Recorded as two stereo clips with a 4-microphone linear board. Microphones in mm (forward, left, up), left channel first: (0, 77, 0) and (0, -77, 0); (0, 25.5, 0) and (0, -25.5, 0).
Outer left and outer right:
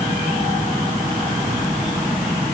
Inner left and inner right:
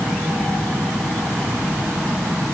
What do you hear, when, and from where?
Only background noise.